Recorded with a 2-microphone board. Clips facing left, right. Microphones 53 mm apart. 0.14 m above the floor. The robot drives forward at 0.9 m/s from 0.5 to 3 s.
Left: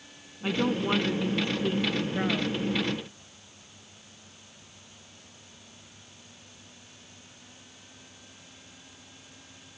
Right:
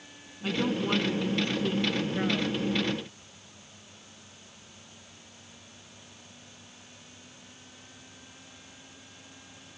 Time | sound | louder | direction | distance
0.4 | a woman speaking | left 2 dB | 20° left (ahead or behind) | ?